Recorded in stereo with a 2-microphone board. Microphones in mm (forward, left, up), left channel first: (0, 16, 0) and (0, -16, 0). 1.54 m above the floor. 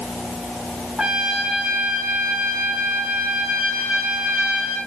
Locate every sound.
1.0 s a trumpet: 30° right (ahead or behind), 5 m